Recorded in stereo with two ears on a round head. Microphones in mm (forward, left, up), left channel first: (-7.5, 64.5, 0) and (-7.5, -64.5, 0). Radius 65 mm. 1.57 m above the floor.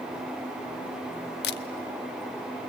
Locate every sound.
1.4 s a camera shutter: 75° left (ahead or behind), 0.7 m